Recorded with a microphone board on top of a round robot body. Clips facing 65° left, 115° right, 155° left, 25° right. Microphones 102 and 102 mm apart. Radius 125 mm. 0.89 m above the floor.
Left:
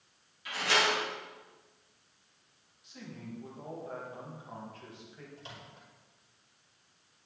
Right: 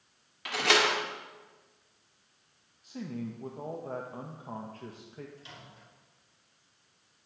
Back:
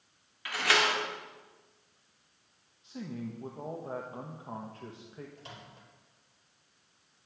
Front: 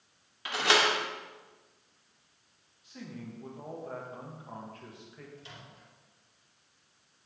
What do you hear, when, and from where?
0.5 s a door slam: 90° right, 1.7 m
2.8 s a man speaking: 150° right, 1.4 m
5.4 s a microwave: 120° left, 4.5 m